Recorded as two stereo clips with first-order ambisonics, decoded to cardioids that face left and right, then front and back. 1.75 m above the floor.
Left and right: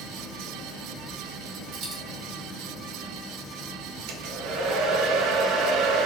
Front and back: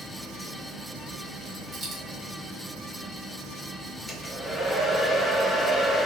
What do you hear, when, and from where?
1.7 s a dropped coin: 130° right, 1.7 m
4.1 s a hair dryer: 75° right, 0.5 m